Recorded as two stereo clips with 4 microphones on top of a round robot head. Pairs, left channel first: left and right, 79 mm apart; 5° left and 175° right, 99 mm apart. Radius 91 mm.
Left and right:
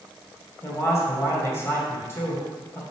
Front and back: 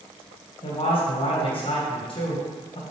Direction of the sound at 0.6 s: 30° left.